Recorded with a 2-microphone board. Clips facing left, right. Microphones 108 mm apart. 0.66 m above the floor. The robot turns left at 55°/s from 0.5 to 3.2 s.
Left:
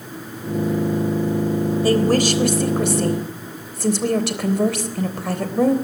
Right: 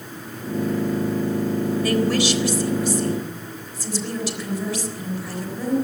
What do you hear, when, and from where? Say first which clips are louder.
1.8 s a woman speaking: left 5 dB; 150° left, 3.5 m; by 5.8 s 75° left, 3.5 m